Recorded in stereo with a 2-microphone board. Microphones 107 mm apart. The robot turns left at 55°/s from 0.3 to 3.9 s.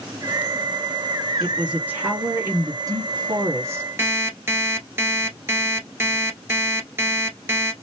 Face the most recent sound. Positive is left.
turn(degrees=-25)  # may be behind; listen again after turning